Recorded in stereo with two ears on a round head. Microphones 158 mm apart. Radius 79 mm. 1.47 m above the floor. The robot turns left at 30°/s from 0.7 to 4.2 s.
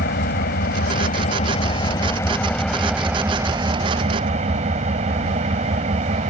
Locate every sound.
0.0 s an engine running: 65° left; by 6.3 s 40° right